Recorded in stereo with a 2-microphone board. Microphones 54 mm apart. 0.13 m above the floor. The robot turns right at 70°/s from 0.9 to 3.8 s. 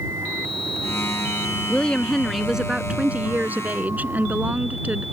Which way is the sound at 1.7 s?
135° left.